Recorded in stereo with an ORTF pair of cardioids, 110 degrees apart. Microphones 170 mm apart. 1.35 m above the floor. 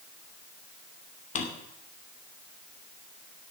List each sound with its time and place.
1.4 s a drawer: 45° left, 2.5 m